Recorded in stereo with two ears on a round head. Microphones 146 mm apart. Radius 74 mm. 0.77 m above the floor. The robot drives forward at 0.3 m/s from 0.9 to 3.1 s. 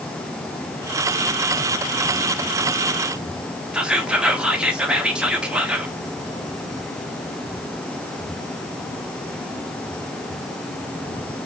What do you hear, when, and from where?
3.7 s whispering: 5° right (ahead or behind), 1.0 m